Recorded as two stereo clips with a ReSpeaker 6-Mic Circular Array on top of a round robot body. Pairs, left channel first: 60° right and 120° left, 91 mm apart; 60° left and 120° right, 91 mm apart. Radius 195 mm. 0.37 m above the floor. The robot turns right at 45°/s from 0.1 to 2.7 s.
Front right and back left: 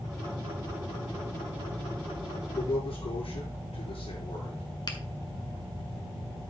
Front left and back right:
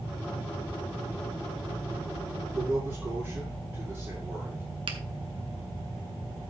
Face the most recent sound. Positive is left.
turn(degrees=-95)